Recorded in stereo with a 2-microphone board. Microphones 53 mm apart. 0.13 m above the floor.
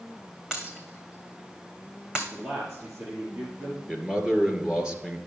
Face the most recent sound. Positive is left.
turn(degrees=-15)  # may be behind; listen again after turning